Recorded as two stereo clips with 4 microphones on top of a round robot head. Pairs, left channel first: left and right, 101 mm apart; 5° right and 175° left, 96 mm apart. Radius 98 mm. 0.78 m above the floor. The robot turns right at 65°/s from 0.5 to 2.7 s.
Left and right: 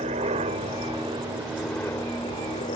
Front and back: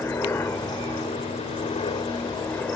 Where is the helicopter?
75° right; by 2.8 s 70° left.